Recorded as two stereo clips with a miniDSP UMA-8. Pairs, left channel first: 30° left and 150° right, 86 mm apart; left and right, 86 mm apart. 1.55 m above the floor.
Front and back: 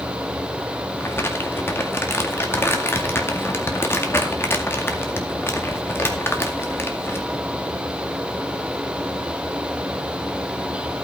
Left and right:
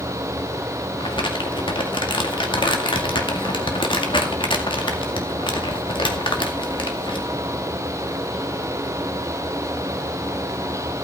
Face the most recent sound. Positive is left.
turn(degrees=90)